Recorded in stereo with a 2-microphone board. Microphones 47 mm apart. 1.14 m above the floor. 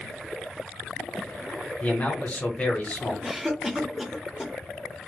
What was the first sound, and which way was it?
A man speaking, 35° left (ahead or behind).